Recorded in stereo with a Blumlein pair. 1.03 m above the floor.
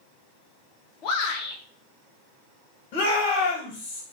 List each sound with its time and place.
1.0 s a shout: 40° left, 0.9 m
2.9 s a shout: 40° left, 1.2 m